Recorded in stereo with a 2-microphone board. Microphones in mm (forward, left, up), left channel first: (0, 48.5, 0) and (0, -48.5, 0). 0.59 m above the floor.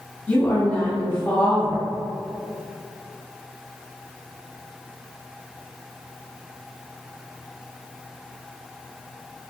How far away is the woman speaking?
About 1.5 m.